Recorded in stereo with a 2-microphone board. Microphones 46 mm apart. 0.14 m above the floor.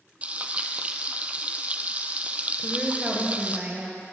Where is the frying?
30° right (ahead or behind), 0.8 m.